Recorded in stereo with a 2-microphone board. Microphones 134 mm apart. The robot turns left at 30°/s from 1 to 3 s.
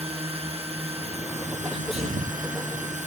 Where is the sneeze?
40° right (ahead or behind); by 2.4 s 65° right (ahead or behind).